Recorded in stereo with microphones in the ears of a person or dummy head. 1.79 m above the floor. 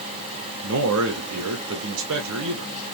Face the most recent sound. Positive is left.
turn(degrees=-70)  # may be behind; listen again after turning